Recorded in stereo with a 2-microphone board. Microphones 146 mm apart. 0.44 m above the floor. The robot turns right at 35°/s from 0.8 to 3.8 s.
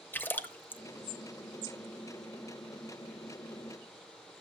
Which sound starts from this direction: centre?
A splash, at 0.1 s.